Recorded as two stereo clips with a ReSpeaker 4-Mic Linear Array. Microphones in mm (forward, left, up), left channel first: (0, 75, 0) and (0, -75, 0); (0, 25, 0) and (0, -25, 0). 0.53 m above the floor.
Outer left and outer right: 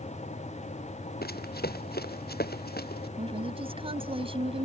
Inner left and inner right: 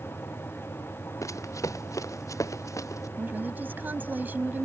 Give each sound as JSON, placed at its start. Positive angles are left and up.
{"t": 1.2, "sound": "running footsteps", "side_deg": 80}
{"t": 3.2, "sound": "a woman speaking", "side_deg": -35}